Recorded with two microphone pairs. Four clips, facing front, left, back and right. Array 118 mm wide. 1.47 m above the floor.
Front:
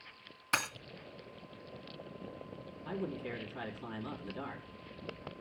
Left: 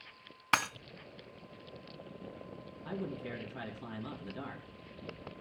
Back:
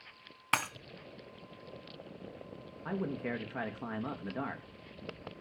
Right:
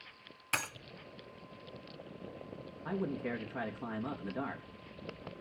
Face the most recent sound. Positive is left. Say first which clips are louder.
# right 4 dB, back 3 dB
turn(degrees=-155)